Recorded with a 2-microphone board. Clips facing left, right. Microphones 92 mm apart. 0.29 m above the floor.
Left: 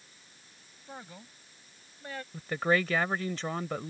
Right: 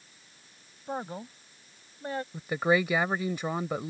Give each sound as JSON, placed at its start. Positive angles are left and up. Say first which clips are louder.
{"t": 0.9, "sound": "a man speaking", "louder": "right 11 dB", "side_deg": -45}
{"t": 2.3, "sound": "a woman speaking", "louder": "right 2 dB", "side_deg": -15}